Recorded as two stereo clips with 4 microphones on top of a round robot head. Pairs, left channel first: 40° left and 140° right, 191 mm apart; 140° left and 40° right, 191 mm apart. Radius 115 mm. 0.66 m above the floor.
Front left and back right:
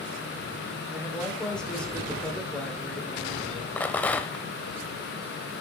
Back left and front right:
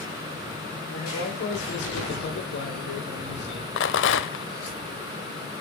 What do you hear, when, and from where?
0.9 s a man speaking: 125° left, 3 m
3.8 s a rattle: 120° left, 0.6 m